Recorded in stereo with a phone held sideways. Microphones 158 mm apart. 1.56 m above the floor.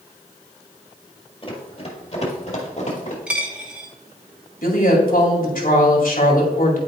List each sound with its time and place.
1.4 s running footsteps: 35° left (ahead or behind), 1.8 m; by 3.2 s 50° left (ahead or behind), 2.5 m
3.3 s a dropped coin: 10° right (ahead or behind), 1.6 m
4.6 s a woman speaking: 65° left (ahead or behind), 2 m